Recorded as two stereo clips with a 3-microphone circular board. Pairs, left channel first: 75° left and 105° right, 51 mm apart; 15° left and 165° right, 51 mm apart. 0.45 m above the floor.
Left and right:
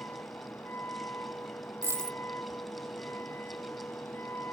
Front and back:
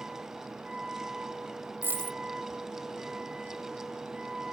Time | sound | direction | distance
0.0 | a vehicle | 120° left | ?
1.8 | a dropped coin | 125° right | ?